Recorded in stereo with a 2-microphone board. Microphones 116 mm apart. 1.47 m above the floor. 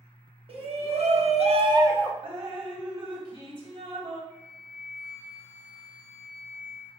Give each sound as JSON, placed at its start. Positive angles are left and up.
{"t": 0.5, "sound": "a shout", "side_deg": -50, "distance_m": 1.3}
{"t": 2.2, "sound": "dripping", "side_deg": -45, "distance_m": 1.2}
{"t": 4.3, "sound": "a flute", "side_deg": -20, "distance_m": 1.1}